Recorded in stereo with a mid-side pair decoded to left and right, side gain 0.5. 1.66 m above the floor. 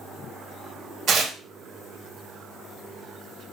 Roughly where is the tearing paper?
Ahead right.